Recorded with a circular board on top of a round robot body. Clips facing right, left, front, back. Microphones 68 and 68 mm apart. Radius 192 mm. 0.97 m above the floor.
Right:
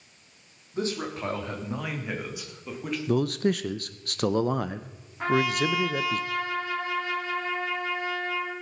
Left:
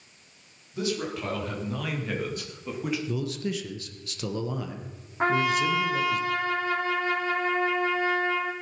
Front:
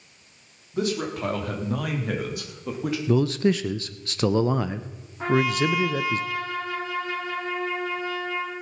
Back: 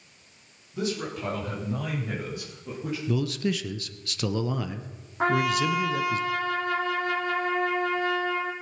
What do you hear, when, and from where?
0.7 s a man speaking: 40° right, 3.5 m; by 3.0 s 5° left, 2.5 m
3.1 s a man speaking: 55° right, 0.6 m
5.2 s a trumpet: 145° left, 1.4 m